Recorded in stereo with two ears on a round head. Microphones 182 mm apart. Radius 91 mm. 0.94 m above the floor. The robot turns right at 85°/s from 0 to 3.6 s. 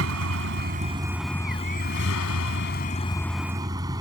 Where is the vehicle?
105° right; by 4.0 s 160° right.